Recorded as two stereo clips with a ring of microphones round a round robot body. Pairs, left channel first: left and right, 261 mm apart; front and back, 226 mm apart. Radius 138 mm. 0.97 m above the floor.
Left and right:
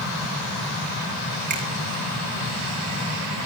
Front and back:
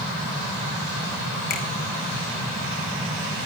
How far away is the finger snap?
About 4.5 m.